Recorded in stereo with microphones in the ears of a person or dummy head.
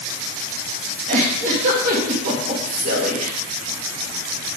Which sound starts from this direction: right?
A giggle, at 1.1 s.